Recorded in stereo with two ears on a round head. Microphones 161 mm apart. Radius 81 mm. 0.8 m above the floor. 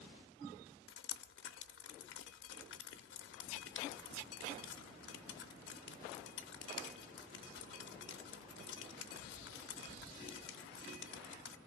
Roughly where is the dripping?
Left.